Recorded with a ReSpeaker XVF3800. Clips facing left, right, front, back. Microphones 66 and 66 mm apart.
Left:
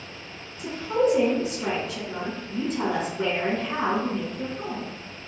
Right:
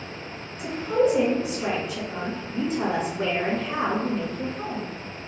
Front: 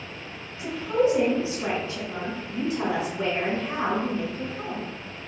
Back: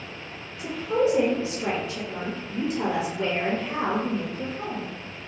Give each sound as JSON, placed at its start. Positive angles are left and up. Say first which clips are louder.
{"t": 0.6, "sound": "a woman speaking", "louder": "right 1 dB, front 1 dB", "azimuth_deg": -10, "distance_m": 1.5}